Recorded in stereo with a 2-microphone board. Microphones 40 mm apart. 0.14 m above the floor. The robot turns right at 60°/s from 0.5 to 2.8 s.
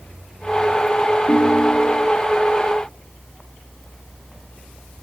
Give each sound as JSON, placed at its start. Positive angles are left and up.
{"t": 1.3, "sound": "a ringtone", "azimuth_deg": 135, "distance_m": 1.8}